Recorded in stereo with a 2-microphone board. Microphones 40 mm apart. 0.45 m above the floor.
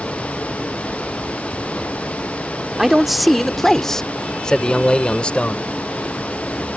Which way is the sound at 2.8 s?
10° right (ahead or behind).